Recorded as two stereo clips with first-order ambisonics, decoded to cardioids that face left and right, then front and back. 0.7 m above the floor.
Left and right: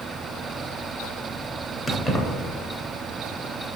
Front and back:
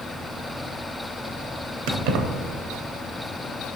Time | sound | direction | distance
1.9 | keys jangling | 170° left | 0.6 m